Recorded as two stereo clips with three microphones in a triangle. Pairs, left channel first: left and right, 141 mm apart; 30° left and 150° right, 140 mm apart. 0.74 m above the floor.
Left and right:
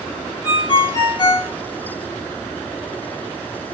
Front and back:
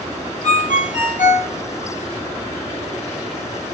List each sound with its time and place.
0.4 s a ringtone: 35° left, 1.3 m